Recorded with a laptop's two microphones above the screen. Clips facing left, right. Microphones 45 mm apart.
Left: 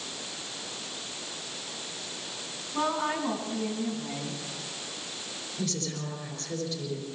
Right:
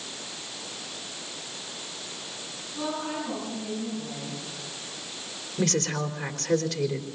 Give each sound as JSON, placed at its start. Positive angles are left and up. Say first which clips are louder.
{"t": 2.7, "sound": "a woman speaking", "louder": "left 3 dB", "side_deg": 70, "distance_m": 9.5}
{"t": 5.6, "sound": "a woman speaking", "louder": "right 8 dB", "side_deg": -75, "distance_m": 3.5}